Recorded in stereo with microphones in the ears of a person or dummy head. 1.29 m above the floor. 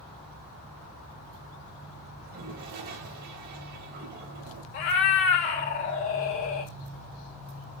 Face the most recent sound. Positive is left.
turn(degrees=50)  # may be behind; listen again after turning